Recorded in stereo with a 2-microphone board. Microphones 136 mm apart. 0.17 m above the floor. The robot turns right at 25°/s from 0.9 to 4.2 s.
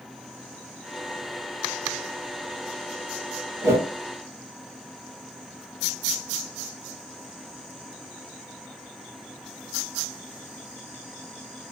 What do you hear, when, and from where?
3.6 s a whoosh: 20° right (ahead or behind), 1.6 m; by 3.9 s 25° right (ahead or behind), 1.6 m